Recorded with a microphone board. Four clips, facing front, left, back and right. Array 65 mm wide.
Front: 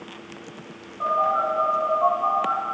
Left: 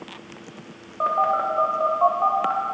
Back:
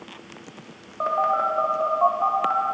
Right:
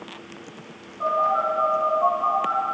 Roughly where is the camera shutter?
I don't hear a camera shutter.